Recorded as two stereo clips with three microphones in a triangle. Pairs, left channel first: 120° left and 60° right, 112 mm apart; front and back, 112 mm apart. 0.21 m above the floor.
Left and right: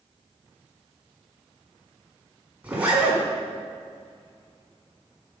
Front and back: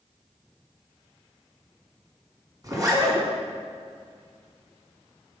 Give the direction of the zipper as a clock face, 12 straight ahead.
4 o'clock.